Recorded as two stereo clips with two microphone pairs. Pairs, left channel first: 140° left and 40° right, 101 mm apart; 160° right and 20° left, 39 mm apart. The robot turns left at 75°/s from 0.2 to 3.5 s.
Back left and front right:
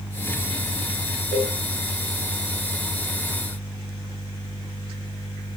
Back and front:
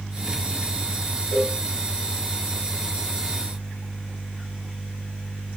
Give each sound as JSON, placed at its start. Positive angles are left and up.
{"t": 1.3, "sound": "a cowbell", "azimuth_deg": 140, "distance_m": 6.0}